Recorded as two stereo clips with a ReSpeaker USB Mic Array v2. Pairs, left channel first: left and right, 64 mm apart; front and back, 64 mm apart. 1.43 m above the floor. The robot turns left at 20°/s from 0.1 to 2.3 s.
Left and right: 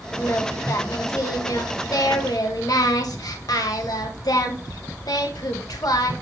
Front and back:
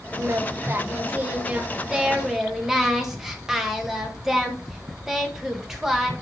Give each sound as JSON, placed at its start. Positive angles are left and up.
{"t": 0.2, "sound": "singing", "azimuth_deg": 140, "distance_m": 1.9}